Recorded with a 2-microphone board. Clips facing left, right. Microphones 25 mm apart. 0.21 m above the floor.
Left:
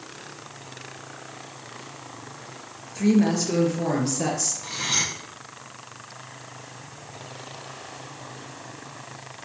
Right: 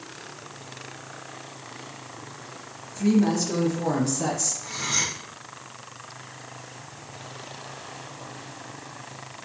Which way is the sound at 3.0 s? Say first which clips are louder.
Left 1 dB; 50° left (ahead or behind).